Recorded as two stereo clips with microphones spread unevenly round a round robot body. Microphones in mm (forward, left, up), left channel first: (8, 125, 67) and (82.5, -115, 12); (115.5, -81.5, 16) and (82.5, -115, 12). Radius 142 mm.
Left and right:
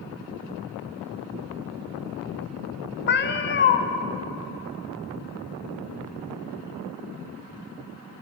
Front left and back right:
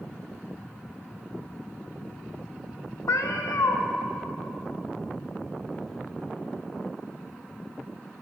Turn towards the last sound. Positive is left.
turn(degrees=55)